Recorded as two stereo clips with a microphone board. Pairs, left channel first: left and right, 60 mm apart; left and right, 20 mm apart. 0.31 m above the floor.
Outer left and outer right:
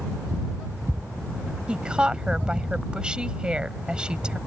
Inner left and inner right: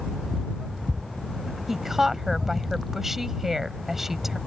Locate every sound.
1.7 s a woman speaking: 15° right (ahead or behind)